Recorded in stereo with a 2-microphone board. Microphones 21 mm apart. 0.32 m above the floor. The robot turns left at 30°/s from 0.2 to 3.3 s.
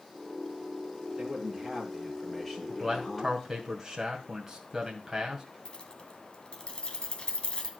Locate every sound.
1.2 s a man speaking: 155° right, 6 m; by 3.5 s 145° left, 6 m
2.7 s a man speaking: centre (ahead or behind), 2.5 m; by 5.5 s 15° right (ahead or behind), 2.5 m
5.7 s keys jangling: 50° left (ahead or behind), 1.8 m